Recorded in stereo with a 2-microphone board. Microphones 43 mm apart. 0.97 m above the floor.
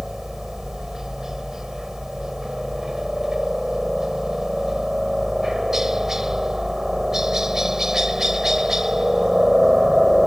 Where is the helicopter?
10° right (ahead or behind).